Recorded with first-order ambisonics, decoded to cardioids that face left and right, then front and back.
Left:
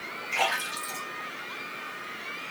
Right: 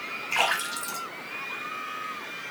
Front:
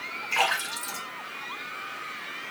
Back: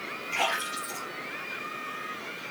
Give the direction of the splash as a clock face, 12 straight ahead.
2 o'clock.